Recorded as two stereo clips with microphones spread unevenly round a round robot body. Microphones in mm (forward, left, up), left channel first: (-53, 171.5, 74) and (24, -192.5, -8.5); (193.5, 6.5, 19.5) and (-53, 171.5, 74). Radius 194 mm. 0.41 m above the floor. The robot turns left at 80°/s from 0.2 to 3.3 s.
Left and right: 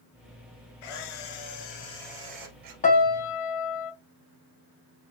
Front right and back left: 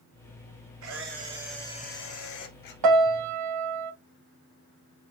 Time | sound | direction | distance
0.8 | a camera shutter | 115° left | 2 m
2.8 | a piano | 170° left | 0.5 m